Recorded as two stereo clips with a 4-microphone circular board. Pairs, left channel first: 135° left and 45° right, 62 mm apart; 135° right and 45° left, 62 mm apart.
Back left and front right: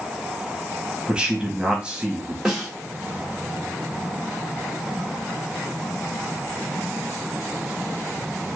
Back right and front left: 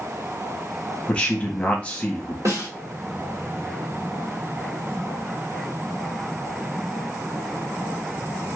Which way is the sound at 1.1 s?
95° right.